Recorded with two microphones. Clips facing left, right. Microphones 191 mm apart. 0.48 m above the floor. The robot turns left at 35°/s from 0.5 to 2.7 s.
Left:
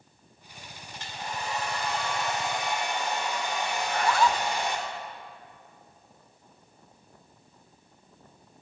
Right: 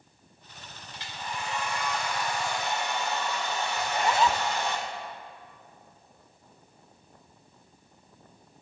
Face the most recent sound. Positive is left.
turn(degrees=-20)  # may be behind; listen again after turning